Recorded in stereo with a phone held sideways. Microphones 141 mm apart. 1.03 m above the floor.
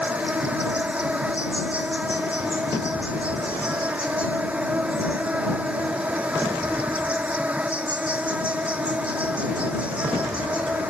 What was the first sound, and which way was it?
An insect, 10° right (ahead or behind).